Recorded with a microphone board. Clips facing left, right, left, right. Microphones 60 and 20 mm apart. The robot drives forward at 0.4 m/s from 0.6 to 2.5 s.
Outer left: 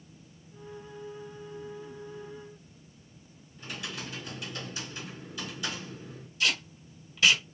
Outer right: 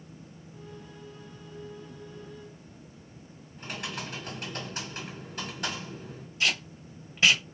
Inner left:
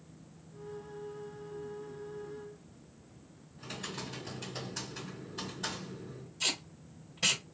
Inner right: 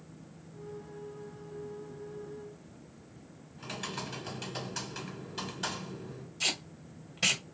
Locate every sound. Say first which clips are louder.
3.6 s typing on a keyboard: outer right 2 dB, inner right 3 dB; 55° right (ahead or behind), 2.5 m
6.4 s tape being pulled: outer right 1 dB, inner right 1 dB; 30° right (ahead or behind), 2.0 m